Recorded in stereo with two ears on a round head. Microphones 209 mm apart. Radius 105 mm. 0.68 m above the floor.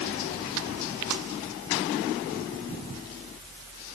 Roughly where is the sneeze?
I don't hear a sneeze.